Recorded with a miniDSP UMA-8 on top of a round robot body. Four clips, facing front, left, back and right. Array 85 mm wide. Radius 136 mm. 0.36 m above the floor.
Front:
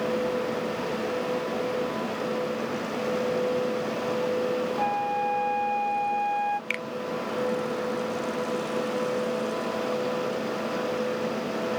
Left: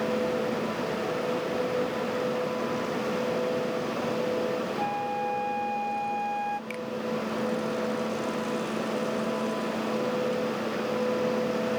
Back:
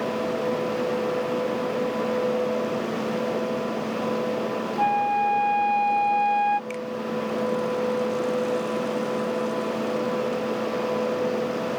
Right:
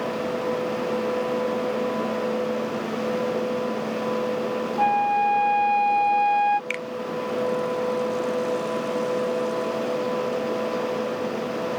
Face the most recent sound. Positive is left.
turn(degrees=-45)